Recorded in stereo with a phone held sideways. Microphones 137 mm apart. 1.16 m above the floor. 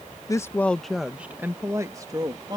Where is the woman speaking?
25° left (ahead or behind); by 2.6 s 30° right (ahead or behind).